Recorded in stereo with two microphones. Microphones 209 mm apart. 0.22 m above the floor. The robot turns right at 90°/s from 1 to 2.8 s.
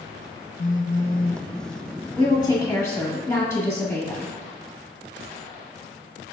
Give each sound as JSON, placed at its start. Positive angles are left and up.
{"t": 0.6, "sound": "a phone buzzing", "azimuth_deg": 70, "distance_m": 0.5}
{"t": 2.2, "sound": "a woman speaking", "side_deg": 20, "distance_m": 1.6}